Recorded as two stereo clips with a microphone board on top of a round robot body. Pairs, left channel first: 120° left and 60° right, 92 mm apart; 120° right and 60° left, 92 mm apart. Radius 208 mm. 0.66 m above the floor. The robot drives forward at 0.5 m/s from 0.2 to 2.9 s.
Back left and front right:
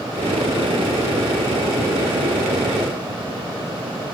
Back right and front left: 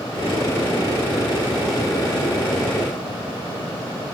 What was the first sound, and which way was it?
Only background noise.